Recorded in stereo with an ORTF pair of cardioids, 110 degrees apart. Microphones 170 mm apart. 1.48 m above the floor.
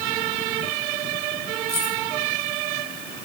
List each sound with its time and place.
1.7 s keys jangling: 40° left, 5.5 m